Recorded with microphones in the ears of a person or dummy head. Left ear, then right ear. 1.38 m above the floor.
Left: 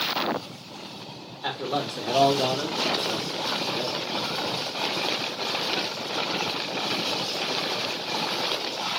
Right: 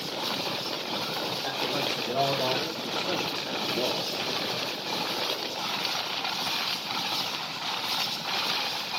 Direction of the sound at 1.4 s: 50° left (ahead or behind).